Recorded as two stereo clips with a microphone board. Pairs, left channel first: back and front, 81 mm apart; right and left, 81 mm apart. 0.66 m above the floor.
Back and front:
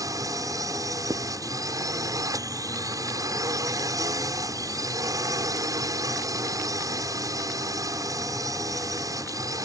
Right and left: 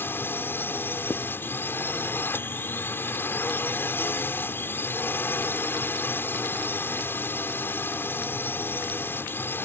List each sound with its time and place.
0.0 s a drone: 30° right
1.1 s writing: 55° right